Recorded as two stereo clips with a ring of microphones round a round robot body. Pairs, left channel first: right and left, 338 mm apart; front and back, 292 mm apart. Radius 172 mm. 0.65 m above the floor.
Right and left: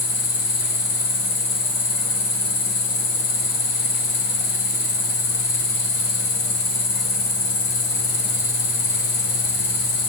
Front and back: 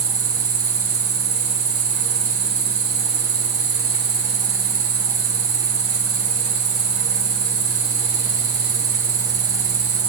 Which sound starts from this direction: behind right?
An insect, at 0.0 s.